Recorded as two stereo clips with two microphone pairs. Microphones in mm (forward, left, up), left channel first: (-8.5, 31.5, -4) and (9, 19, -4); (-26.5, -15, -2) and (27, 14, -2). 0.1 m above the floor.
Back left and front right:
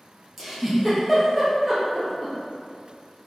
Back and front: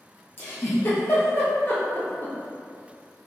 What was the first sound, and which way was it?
A giggle, 125° right.